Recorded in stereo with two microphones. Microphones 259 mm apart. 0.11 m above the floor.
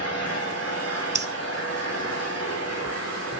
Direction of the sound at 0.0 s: 70° left (ahead or behind).